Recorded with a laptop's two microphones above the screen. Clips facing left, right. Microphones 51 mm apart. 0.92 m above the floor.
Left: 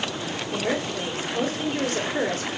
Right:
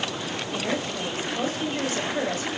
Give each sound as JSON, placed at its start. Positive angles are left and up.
{"t": 0.5, "sound": "a woman speaking", "side_deg": 60, "distance_m": 2.5}